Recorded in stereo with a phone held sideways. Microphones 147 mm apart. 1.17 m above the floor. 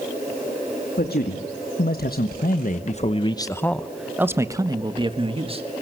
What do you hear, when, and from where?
1.0 s a man speaking: 85° left, 1.9 m; by 5.6 s 40° right (ahead or behind), 1.8 m